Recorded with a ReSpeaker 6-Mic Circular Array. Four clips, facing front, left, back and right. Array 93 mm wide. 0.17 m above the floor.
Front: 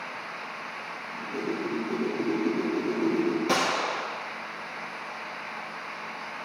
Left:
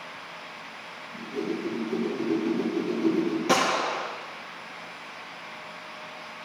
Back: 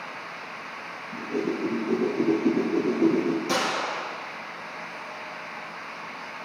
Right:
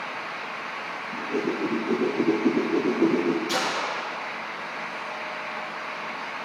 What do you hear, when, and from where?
1.1 s a whoosh: 120° right, 2.5 m
3.5 s a gunshot: 70° left, 3.5 m